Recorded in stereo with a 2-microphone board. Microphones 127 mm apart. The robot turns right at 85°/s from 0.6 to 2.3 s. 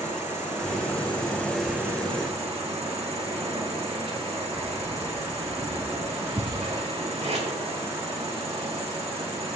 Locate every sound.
0.0 s an insect: 95° left, 3 m; by 9.6 s 120° right, 3 m
4.5 s keys jangling: 20° right (ahead or behind), 1.7 m
7.2 s tape being pulled: 60° right (ahead or behind), 5.5 m